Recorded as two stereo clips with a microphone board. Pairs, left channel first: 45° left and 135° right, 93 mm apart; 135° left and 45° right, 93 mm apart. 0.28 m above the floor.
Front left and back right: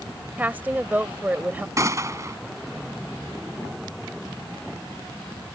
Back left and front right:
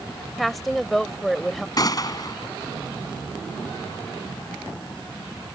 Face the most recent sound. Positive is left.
turn(degrees=175)